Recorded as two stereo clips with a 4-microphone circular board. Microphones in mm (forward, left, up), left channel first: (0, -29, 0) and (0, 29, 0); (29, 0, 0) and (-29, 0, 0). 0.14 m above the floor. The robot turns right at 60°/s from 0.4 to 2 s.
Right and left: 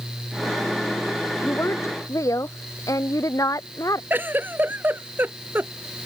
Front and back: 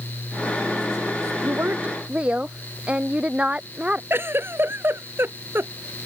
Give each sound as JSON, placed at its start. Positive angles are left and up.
{"t": 1.4, "sound": "a woman speaking", "azimuth_deg": -145}
{"t": 4.1, "sound": "a giggle", "azimuth_deg": 140}